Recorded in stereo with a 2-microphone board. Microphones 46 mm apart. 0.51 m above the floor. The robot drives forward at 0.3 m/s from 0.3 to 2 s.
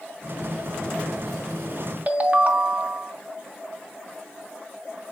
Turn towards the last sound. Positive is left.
turn(degrees=-35)  # may be behind; listen again after turning